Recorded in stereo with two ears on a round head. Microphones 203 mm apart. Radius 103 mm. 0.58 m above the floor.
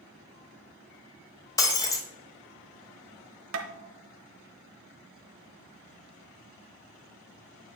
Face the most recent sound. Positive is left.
turn(degrees=-60)  # may be behind; listen again after turning